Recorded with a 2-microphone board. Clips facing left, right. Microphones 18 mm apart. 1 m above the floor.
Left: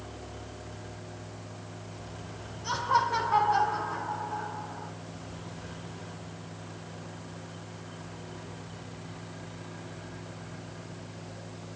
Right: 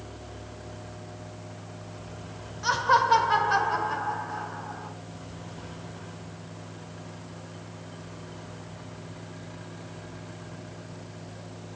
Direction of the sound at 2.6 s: 70° right (ahead or behind).